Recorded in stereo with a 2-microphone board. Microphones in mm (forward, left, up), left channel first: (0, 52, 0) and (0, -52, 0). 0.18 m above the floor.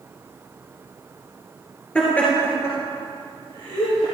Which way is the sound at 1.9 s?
10° left (ahead or behind).